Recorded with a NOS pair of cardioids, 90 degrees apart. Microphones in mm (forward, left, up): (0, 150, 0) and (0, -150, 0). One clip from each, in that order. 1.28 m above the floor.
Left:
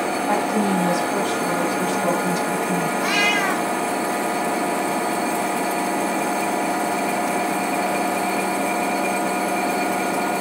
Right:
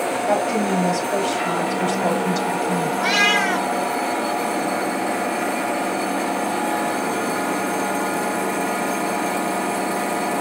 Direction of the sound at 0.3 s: 50° right.